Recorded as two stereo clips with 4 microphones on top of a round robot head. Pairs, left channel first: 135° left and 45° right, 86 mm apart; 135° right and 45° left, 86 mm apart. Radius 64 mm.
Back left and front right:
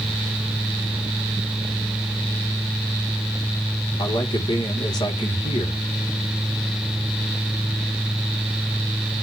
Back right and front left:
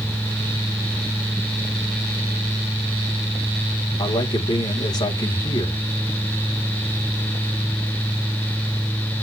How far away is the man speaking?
About 3.5 m.